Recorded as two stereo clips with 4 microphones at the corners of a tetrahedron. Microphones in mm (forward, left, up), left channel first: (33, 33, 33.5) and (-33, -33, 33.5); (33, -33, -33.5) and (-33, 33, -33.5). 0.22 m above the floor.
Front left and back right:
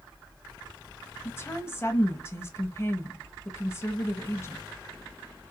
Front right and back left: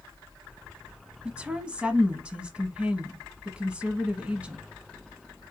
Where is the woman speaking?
70° left, 1.1 m.